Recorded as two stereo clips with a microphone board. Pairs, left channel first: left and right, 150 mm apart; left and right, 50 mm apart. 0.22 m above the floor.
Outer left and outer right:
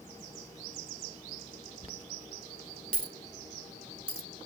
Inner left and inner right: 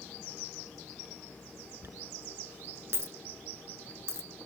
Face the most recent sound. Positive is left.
turn(degrees=-65)  # may be behind; listen again after turning